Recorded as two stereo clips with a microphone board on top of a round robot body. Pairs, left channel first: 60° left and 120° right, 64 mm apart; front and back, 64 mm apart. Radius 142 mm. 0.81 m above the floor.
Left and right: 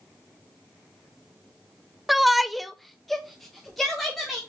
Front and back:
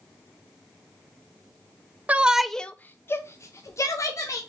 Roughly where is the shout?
Behind left.